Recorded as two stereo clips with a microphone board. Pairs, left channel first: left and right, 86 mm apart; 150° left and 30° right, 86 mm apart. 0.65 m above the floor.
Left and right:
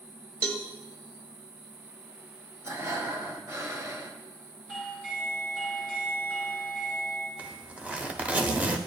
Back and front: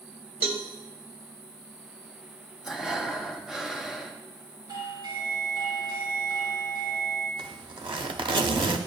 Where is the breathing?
110° right, 0.7 m.